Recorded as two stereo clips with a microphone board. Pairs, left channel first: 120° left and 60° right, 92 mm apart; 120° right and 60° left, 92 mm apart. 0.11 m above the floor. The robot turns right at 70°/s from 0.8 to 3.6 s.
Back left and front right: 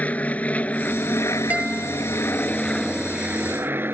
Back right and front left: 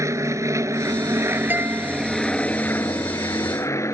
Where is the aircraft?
60° left; by 3.9 s 105° right.